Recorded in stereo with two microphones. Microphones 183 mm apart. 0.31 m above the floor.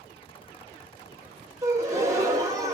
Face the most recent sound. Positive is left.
turn(degrees=-15)  # may be behind; listen again after turning